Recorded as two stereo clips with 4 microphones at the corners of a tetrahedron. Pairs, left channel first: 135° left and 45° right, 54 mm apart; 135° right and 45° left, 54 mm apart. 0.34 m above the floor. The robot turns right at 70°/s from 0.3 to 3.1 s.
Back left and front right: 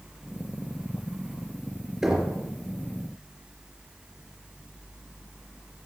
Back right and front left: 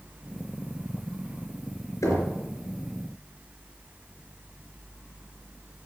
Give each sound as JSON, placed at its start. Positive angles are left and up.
{"t": 2.0, "sound": "knocking", "azimuth_deg": -125, "distance_m": 3.5}